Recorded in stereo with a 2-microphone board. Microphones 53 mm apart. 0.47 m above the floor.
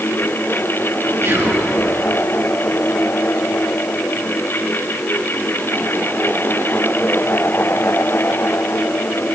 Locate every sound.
1.2 s whispering: 60° right (ahead or behind), 6.5 m